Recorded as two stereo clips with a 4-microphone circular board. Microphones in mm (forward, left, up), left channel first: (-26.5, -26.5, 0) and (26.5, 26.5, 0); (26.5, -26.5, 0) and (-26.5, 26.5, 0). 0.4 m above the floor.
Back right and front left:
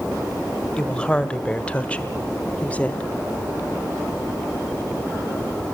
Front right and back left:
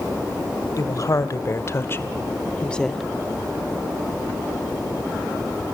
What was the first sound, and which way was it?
A woman speaking, 60° right.